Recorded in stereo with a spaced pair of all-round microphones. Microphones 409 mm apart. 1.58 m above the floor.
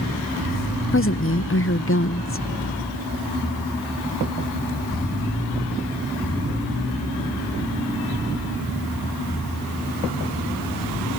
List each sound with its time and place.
0.9 s a woman speaking: 30° left (ahead or behind)